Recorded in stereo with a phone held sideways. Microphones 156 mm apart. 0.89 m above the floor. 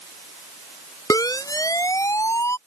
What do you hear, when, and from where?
1.1 s a siren: 25° left (ahead or behind); by 2.6 s 20° left (ahead or behind)